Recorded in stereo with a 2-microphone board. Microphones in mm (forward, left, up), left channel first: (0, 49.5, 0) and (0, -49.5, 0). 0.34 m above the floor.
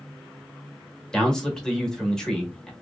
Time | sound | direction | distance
1.1 | a man speaking | 5° left (ahead or behind) | 1.0 m